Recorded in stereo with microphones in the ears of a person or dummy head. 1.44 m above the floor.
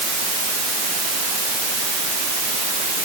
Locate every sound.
Only background noise.